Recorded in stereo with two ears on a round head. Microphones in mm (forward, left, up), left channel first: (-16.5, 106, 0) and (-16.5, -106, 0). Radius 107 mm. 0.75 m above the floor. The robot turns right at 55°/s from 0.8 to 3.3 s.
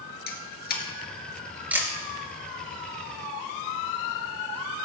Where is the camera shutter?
40° left (ahead or behind), 3 m; by 1.9 s 15° right (ahead or behind), 3 m.